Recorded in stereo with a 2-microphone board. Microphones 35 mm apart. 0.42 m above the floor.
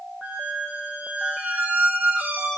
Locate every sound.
0.2 s a squeak: 65° right (ahead or behind), 7.5 m